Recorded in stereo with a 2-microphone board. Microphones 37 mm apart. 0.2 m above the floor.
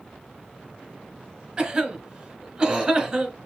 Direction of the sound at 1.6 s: 15° right (ahead or behind).